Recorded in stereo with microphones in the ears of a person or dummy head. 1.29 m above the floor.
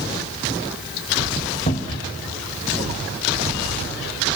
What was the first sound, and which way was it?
A cupboard door, 35° left (ahead or behind).